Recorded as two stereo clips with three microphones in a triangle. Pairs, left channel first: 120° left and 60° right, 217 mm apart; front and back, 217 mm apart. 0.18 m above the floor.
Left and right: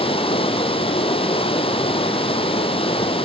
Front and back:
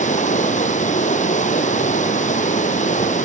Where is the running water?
55° left, 1.5 m.